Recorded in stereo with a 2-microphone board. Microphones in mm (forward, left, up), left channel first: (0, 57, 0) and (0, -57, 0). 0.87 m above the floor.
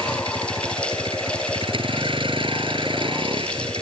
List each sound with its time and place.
0.0 s a vehicle: 50° right (ahead or behind)